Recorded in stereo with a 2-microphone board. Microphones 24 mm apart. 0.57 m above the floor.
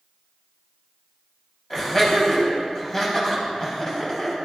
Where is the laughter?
15° left (ahead or behind), 4 m.